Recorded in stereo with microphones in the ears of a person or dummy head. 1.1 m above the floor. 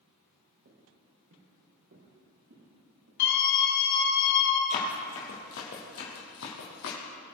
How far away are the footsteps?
About 3.5 m.